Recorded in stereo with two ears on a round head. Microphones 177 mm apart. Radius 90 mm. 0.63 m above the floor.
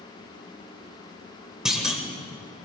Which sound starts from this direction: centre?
A clunk, at 1.6 s.